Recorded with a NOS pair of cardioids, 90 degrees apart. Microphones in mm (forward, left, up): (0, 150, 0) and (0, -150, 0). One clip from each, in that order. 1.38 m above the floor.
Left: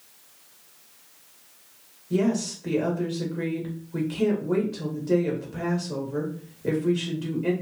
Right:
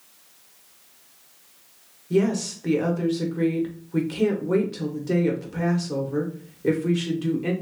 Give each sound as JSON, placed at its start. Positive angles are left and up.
{"t": 2.1, "sound": "a woman speaking", "azimuth_deg": -30, "distance_m": 1.5}